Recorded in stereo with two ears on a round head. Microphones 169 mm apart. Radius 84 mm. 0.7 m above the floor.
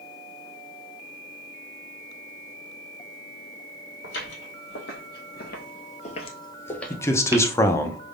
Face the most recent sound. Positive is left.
turn(degrees=15)  # may be behind; listen again after turning